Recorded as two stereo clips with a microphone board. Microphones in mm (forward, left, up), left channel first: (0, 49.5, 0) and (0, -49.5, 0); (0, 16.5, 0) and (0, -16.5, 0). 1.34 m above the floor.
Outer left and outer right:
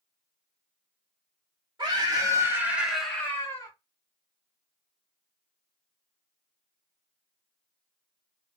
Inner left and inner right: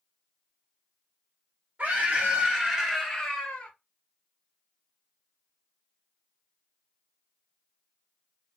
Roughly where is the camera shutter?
No camera shutter in this recording.